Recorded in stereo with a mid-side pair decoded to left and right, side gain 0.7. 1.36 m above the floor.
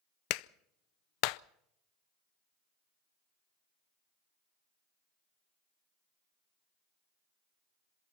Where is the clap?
70° left, 0.5 m.